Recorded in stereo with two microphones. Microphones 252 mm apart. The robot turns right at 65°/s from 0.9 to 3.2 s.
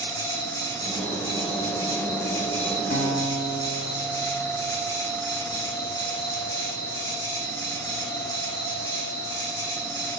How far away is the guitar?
About 7 m.